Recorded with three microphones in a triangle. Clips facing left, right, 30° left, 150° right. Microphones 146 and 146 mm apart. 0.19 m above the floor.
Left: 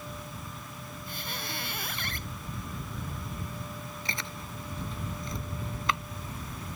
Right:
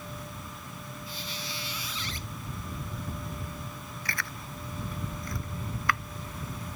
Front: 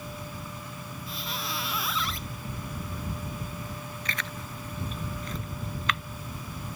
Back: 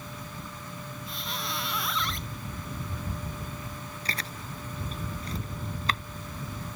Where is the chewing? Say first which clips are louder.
Right 3 dB, back 1 dB; 155° left.